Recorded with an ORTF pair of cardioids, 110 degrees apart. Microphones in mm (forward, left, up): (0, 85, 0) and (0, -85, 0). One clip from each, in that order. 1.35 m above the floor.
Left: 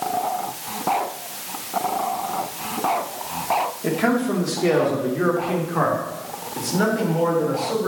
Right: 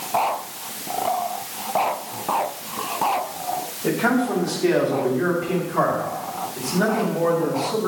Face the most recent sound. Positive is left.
turn(degrees=50)